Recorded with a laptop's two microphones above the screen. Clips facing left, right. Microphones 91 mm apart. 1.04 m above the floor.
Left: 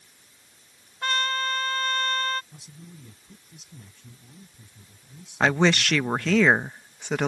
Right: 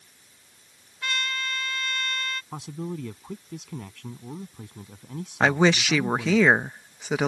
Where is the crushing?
No crushing in this recording.